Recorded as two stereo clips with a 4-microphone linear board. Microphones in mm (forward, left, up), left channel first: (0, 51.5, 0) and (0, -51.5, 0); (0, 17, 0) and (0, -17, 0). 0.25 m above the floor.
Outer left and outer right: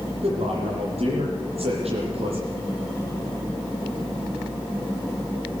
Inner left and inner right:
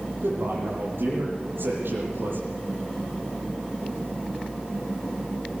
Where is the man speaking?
80° right, 9.5 m.